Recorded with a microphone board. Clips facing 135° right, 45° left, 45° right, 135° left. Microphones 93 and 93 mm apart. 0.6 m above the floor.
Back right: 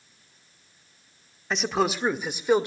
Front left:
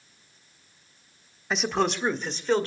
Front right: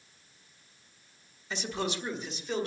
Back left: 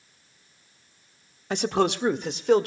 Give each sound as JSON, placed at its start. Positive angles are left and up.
{"t": 1.5, "sound": "a man speaking", "azimuth_deg": 135, "distance_m": 1.3}